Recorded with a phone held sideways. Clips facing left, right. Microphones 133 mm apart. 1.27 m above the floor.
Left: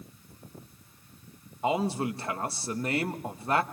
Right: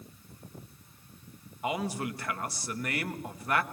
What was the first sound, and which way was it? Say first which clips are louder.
A man speaking: left 5 dB; 30° left (ahead or behind).